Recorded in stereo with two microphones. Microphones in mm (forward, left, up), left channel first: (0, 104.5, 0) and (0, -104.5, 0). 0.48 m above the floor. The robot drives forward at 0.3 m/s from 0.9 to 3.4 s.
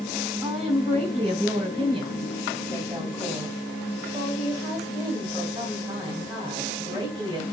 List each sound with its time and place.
0.4 s a woman speaking: 30° right (ahead or behind), 1.1 m; by 7.4 s 20° right (ahead or behind), 1.6 m